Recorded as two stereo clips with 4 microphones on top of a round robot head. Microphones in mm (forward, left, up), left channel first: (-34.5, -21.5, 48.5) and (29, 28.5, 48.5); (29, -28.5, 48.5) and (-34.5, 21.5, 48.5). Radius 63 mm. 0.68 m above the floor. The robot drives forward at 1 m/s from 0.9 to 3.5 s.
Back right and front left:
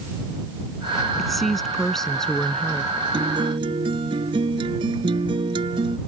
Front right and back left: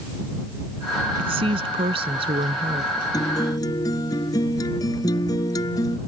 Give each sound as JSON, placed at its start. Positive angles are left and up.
{"t": 1.2, "sound": "a woman speaking", "azimuth_deg": 130}
{"t": 3.1, "sound": "a guitar", "azimuth_deg": 10}